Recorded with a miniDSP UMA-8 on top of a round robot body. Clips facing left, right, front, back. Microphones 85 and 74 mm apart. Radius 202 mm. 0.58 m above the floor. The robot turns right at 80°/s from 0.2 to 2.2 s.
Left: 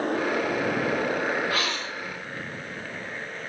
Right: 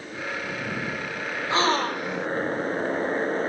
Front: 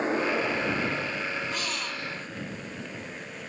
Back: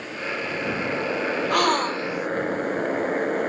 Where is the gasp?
155° right; by 2.3 s 100° right.